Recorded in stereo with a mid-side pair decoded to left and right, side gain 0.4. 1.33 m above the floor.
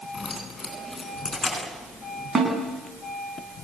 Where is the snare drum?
40° right, 10 m.